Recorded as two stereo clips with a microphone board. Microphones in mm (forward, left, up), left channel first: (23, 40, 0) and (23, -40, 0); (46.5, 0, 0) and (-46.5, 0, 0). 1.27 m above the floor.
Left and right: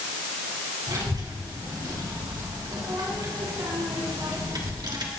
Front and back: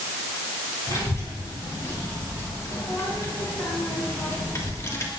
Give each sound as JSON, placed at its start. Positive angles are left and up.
{"t": 0.9, "sound": "a child speaking", "azimuth_deg": -55, "distance_m": 5.0}